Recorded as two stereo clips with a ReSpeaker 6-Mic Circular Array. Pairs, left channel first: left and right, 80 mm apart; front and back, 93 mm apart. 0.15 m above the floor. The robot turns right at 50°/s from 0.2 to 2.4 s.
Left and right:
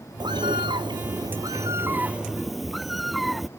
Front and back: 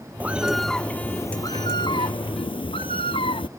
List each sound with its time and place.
0.2 s a bird: 110° right; by 3.5 s straight ahead